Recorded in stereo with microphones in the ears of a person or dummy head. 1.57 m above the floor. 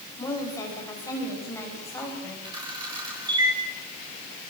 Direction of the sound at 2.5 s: 20° right (ahead or behind).